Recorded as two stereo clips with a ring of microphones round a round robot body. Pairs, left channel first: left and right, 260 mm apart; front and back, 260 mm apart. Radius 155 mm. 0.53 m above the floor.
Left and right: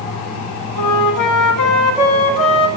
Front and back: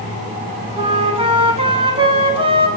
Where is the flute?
110° left, 1.2 m.